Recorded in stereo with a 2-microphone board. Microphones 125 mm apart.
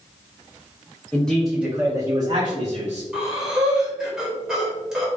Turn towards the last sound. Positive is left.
turn(degrees=-5)  # may be behind; listen again after turning